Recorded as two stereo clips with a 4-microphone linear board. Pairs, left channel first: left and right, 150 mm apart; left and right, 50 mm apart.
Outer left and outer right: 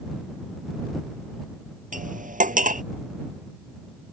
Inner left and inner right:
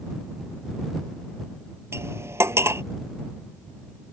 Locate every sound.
1.9 s cutlery clinking: 65° right (ahead or behind)